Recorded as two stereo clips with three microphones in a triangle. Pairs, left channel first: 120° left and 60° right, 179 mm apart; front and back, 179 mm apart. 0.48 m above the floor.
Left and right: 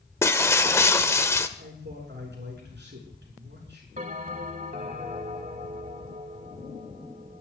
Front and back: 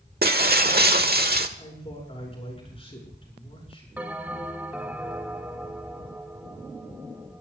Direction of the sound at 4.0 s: 100° right.